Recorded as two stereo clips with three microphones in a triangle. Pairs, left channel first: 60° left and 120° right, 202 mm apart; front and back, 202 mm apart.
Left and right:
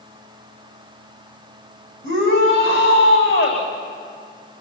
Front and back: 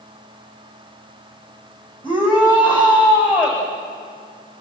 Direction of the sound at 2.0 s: 70° left.